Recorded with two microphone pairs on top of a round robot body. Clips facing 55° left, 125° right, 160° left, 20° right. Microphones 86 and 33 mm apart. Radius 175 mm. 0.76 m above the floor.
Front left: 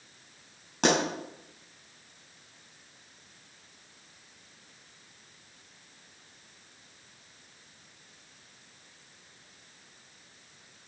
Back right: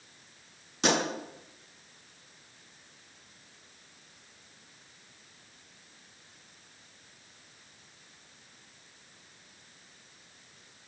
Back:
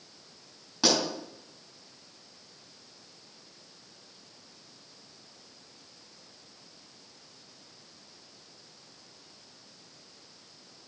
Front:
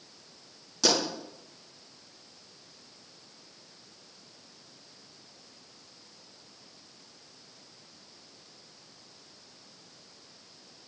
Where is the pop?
90° left, 5 m.